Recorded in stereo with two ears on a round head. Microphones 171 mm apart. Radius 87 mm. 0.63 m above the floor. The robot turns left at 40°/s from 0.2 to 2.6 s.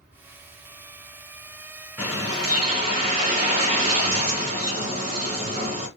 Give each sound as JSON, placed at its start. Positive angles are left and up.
{"t": 2.0, "sound": "a bird", "side_deg": -5, "distance_m": 3.0}